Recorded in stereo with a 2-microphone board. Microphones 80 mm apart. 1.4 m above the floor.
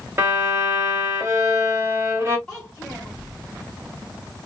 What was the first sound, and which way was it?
A violin, 30° right (ahead or behind).